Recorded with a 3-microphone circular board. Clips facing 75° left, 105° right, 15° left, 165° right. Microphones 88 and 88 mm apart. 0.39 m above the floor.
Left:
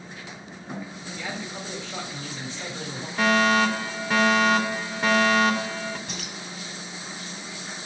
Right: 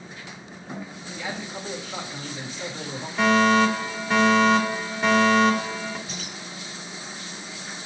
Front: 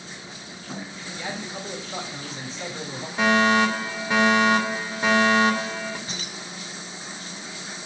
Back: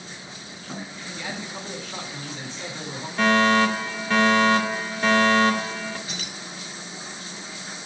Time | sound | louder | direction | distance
1.1 | a man speaking | right 1 dB, front 1 dB | 30° right | 2.5 m
3.2 | a fire alarm | right 2 dB, even | 10° right | 1.8 m
6.1 | keys jangling | even, even | 65° left | 2 m